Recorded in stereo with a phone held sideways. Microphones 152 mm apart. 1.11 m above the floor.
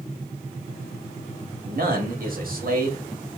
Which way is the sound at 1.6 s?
70° right (ahead or behind).